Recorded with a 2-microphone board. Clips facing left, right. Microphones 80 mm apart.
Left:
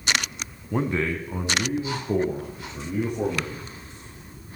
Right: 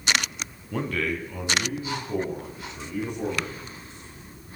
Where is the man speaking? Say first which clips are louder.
Left 3 dB; 20° left (ahead or behind), 1.2 m; by 3.6 s 40° left (ahead or behind), 5 m.